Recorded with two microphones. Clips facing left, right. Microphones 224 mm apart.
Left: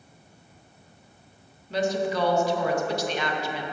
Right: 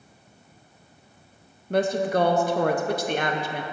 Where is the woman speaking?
55° right (ahead or behind), 0.6 m.